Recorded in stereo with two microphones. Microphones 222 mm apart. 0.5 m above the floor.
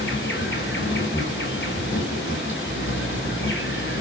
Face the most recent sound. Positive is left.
turn(degrees=60)  # may be behind; listen again after turning